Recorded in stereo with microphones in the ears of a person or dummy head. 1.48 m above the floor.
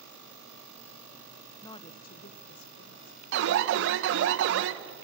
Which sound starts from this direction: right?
An alarm, at 3.3 s.